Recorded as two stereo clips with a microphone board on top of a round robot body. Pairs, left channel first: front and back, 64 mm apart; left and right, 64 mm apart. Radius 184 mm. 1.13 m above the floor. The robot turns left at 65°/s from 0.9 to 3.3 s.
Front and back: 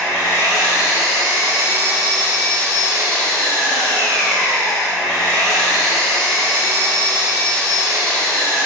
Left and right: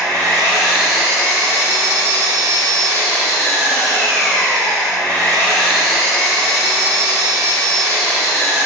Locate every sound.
0.0 s an engine running: 165° left, 1.1 m; by 8.7 s 10° left, 1.1 m